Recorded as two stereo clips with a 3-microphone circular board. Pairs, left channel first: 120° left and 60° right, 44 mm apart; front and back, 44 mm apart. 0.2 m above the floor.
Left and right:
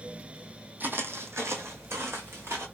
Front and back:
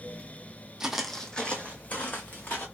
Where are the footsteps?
105° right, 0.6 m; by 2.6 s 45° right, 1.4 m.